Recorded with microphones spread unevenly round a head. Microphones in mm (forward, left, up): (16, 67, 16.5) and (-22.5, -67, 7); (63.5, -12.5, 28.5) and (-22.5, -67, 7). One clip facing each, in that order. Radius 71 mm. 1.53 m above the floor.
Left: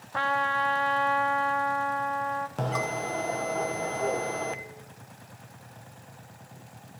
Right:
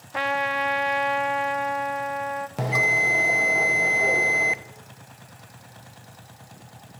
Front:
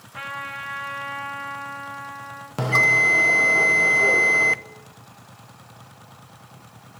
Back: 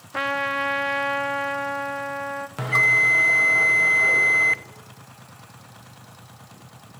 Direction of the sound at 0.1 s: Straight behind.